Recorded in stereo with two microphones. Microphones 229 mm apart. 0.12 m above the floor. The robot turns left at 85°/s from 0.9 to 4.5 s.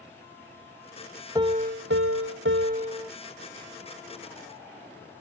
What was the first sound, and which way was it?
A piano, 20° right.